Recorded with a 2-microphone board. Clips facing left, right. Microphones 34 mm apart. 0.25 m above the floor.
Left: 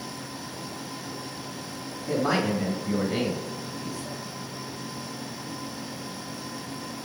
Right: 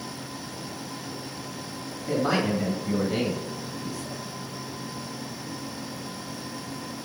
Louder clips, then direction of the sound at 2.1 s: Even; 20° right (ahead or behind).